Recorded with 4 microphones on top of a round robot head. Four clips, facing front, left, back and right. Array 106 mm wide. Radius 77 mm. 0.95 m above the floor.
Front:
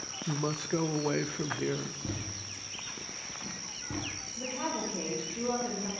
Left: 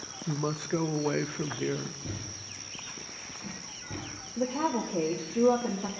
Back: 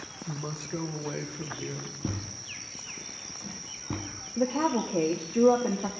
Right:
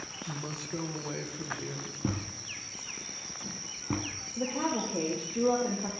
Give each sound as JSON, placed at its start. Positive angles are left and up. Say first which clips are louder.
{"t": 0.3, "sound": "a woman speaking", "louder": "left 9 dB, front 5 dB", "azimuth_deg": 55, "distance_m": 1.0}
{"t": 2.0, "sound": "a thud", "louder": "right 6 dB, back 3 dB", "azimuth_deg": -115, "distance_m": 2.5}
{"t": 4.4, "sound": "a woman speaking", "louder": "left 2 dB, back 9 dB", "azimuth_deg": 165, "distance_m": 2.0}